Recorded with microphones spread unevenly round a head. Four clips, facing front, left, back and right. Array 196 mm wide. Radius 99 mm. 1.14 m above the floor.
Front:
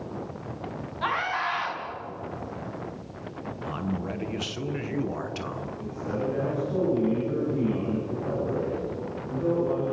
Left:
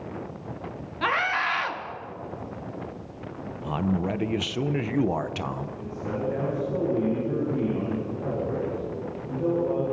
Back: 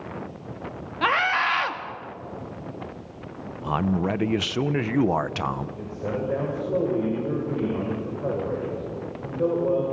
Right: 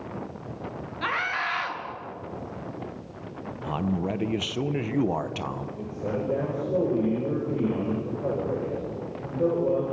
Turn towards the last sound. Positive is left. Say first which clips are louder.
# right 4 dB, back 2 dB
turn(degrees=-145)